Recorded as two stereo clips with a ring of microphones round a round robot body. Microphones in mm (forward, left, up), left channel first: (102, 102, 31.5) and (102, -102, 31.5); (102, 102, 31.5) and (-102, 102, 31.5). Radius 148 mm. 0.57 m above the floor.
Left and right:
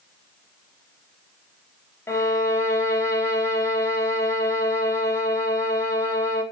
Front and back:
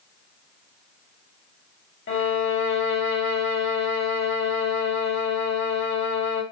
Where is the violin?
15° left, 3.5 m.